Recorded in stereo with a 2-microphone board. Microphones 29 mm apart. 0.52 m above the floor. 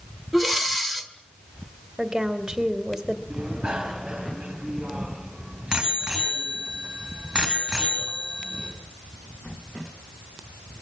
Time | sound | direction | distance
0.3 | breathing | 5° left (ahead or behind) | 1.8 m
2.0 | a woman speaking | 20° right (ahead or behind) | 2 m
3.3 | a bicycle bell | 25° right (ahead or behind) | 4 m